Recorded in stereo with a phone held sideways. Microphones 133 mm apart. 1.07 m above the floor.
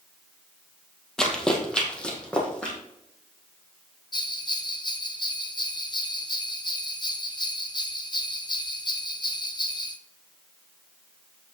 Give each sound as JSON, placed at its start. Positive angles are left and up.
{"t": 1.2, "sound": "running footsteps", "side_deg": 5, "distance_m": 1.5}
{"t": 4.1, "sound": "a bell", "side_deg": 35, "distance_m": 0.8}